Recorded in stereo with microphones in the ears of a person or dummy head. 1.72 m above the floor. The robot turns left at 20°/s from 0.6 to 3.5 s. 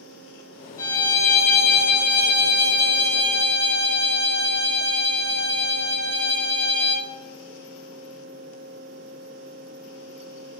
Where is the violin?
20° left, 0.9 m; by 7.1 s 35° right, 0.9 m.